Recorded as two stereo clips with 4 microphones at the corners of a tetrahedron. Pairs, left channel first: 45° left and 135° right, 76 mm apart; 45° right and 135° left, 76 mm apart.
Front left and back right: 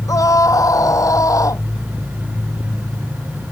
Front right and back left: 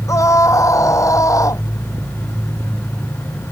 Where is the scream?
5° left; by 1.6 s straight ahead.